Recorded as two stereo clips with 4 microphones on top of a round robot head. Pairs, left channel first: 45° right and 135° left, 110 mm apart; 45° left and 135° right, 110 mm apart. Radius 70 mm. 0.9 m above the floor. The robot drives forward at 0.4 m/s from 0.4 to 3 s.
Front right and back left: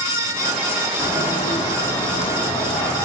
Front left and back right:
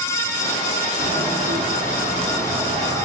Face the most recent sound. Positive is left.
turn(degrees=-105)